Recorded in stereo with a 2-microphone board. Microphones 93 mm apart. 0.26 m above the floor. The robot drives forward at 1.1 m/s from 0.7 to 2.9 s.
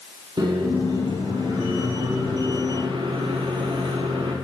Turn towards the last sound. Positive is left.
turn(degrees=-75)  # may be behind; listen again after turning